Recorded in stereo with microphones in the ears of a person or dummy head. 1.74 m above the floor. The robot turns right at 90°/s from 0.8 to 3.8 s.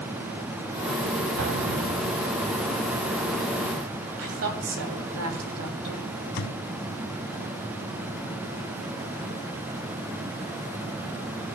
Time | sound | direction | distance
1.4 | an explosion | 95° right | 1.5 m
4.2 | a woman speaking | 75° right (ahead or behind) | 2.5 m
6.4 | a thud | 60° left (ahead or behind) | 3 m